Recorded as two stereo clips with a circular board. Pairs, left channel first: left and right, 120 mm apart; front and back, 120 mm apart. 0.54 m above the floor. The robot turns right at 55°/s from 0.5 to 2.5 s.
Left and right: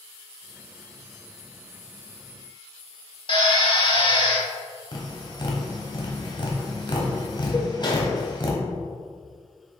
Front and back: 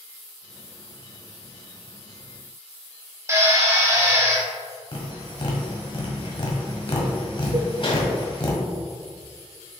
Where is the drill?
120° left, 1.4 m.